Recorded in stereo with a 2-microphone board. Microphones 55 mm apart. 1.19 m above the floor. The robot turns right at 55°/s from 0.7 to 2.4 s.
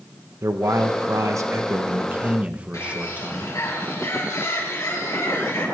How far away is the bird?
About 5.5 m.